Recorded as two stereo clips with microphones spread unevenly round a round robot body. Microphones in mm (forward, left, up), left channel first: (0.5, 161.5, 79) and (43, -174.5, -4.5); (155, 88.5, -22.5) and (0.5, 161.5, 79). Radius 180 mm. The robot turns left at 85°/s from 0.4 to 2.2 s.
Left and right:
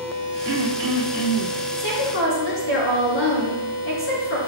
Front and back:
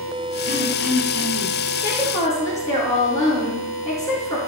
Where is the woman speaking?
75° left, 5.5 m; by 4.4 s 40° left, 5.5 m.